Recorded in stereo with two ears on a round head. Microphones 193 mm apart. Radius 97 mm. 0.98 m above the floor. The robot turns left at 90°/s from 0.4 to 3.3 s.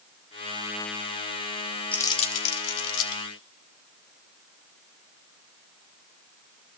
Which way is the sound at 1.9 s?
5° left (ahead or behind).